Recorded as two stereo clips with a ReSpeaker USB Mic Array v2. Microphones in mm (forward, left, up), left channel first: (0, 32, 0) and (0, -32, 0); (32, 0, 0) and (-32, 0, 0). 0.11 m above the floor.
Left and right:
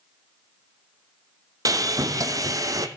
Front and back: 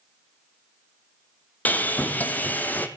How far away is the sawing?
About 1.0 m.